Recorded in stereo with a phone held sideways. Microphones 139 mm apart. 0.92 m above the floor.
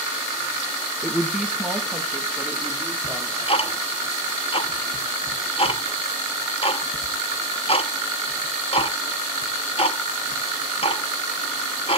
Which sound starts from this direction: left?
Ticking, at 3.0 s.